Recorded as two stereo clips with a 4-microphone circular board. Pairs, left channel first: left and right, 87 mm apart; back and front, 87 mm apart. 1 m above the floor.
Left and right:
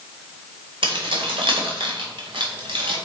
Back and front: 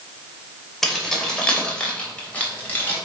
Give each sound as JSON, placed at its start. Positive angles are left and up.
{"t": 0.8, "sound": "keys jangling", "azimuth_deg": -95, "distance_m": 2.5}